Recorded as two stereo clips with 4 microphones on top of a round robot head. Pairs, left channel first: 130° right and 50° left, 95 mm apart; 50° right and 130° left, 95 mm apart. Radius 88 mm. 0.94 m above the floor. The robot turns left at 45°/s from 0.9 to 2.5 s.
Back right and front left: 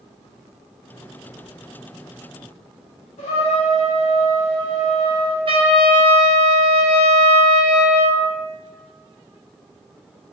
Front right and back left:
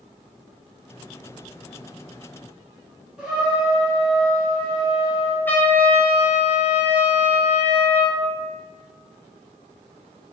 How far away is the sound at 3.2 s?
About 0.7 m.